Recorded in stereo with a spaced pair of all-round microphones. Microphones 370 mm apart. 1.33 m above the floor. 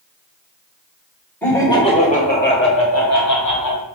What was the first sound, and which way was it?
Laughter, 5° left (ahead or behind).